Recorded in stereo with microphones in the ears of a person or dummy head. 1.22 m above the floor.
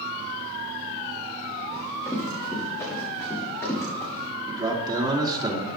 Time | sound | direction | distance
1.7 | running footsteps | 15° left (ahead or behind) | 5.5 m
4.5 | a man speaking | 25° right (ahead or behind) | 2.5 m